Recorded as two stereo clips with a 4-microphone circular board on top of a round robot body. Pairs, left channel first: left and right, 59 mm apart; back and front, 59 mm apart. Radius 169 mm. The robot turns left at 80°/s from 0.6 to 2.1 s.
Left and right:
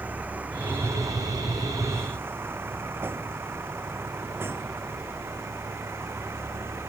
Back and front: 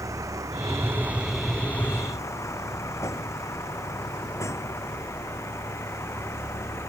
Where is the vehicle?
30° right; by 6.9 s 135° right.